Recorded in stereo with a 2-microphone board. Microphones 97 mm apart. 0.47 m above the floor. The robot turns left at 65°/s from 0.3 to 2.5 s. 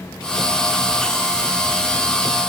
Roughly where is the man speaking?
No man speaking in this recording.